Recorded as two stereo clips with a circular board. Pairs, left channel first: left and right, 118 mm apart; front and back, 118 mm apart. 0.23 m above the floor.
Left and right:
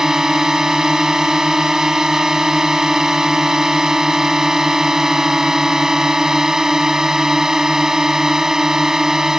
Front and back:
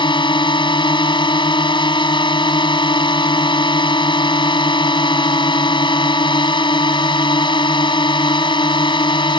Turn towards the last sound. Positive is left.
turn(degrees=-5)